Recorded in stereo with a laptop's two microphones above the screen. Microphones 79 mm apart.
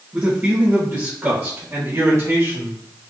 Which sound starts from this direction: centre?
A man speaking, at 0.1 s.